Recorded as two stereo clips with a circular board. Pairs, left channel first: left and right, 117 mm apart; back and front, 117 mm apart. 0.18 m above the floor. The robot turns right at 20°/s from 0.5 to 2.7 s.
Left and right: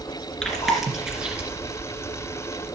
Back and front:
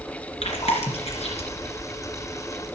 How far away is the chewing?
About 2.5 m.